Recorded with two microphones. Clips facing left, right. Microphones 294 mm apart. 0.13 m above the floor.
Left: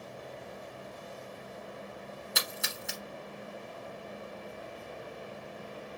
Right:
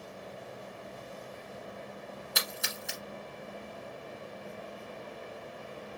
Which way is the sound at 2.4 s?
Centre (ahead or behind).